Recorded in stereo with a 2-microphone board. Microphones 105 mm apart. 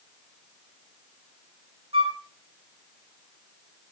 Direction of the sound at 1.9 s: 60° right (ahead or behind).